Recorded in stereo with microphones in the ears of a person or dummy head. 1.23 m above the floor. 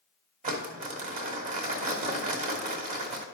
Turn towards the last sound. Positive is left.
turn(degrees=-30)  # may be behind; listen again after turning